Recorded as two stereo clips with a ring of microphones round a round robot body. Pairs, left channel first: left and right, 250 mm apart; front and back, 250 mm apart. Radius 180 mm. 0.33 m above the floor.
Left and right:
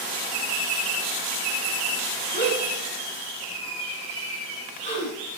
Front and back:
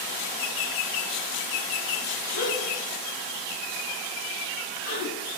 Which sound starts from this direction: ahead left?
A gasp, at 2.3 s.